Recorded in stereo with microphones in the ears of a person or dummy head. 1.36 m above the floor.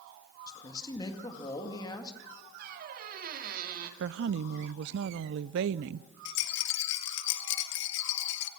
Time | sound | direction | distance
0.5 | a man speaking | 25° left (ahead or behind) | 2 m
2.6 | a squeak | 50° right (ahead or behind) | 2.0 m
4.0 | a woman speaking | 65° right (ahead or behind) | 0.5 m
6.2 | a rattle | 70° left (ahead or behind) | 1.1 m